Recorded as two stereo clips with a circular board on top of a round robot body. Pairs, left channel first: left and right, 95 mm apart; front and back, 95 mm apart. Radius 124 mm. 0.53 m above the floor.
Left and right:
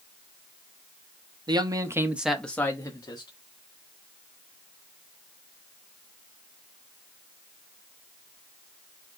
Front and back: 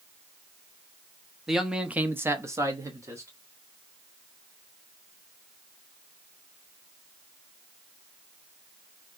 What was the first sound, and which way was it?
A man speaking, 95° right.